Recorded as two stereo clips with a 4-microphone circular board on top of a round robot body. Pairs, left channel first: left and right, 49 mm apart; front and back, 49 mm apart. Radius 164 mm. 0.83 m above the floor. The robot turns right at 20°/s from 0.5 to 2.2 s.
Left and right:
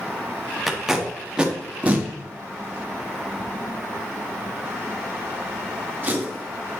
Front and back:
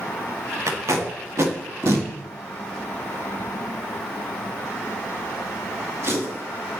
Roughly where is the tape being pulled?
Behind.